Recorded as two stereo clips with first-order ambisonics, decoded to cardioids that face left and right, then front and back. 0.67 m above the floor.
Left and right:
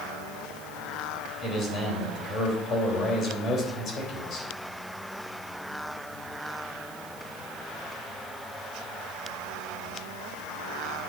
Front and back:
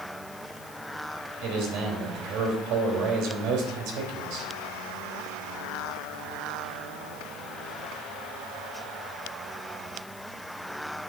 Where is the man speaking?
150° left, 3 m.